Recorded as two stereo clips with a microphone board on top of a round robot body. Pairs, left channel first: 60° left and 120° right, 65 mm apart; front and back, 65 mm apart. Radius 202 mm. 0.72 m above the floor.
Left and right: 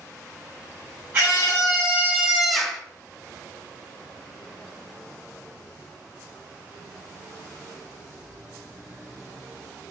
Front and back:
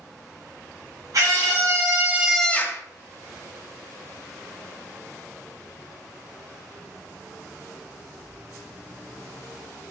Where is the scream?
Straight behind, 2.0 m; by 2.8 s 15° right, 1.2 m.